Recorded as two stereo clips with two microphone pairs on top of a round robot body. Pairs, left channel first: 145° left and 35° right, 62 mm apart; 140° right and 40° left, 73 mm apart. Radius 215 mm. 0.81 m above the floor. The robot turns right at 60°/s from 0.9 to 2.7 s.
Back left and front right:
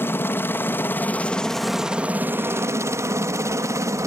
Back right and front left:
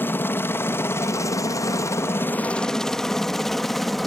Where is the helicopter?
175° left; by 4.1 s 50° right.